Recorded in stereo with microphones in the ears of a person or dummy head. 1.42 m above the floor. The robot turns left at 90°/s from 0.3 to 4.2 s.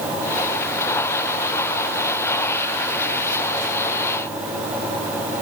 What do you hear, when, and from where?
Only background noise.